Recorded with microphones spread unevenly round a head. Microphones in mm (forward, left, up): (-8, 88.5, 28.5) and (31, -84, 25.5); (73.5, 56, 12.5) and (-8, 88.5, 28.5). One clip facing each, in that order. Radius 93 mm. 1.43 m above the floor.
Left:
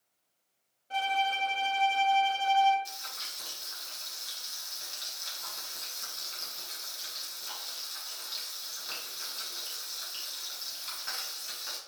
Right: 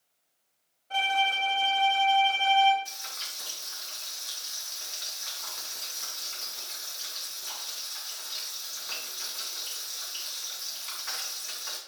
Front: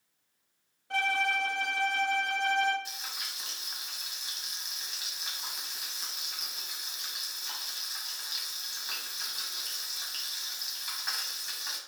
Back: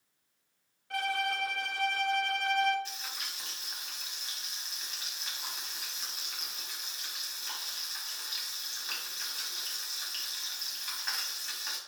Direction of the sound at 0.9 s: 35° left.